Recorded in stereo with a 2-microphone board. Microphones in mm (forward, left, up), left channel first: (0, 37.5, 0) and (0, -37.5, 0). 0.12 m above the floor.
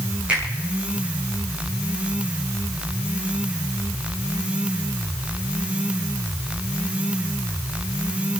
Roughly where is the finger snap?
Centre.